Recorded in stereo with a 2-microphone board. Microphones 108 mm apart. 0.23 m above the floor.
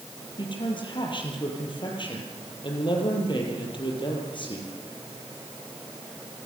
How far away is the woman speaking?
About 6 m.